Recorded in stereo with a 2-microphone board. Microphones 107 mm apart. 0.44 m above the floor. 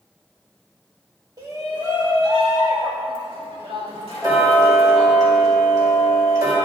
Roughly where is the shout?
Right.